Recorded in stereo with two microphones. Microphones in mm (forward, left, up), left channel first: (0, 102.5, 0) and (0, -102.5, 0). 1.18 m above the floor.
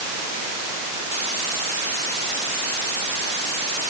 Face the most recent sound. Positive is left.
No sound to turn to.